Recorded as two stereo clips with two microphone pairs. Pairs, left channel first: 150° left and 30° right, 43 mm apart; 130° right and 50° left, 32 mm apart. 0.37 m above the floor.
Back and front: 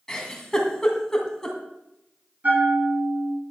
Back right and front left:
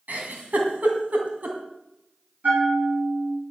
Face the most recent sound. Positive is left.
turn(degrees=20)